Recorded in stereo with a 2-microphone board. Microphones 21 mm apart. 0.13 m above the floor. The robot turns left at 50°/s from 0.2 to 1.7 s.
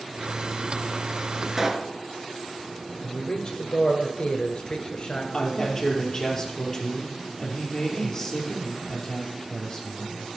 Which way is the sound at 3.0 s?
50° left (ahead or behind).